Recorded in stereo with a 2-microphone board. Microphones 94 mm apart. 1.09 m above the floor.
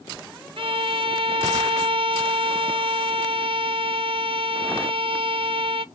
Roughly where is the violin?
Right.